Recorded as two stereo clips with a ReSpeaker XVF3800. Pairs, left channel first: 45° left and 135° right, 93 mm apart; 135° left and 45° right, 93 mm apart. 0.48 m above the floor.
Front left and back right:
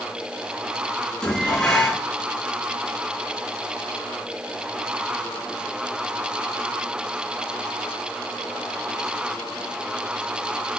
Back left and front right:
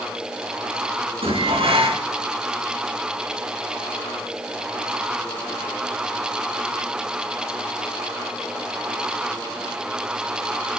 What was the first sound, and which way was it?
Dishes clattering, 40° right.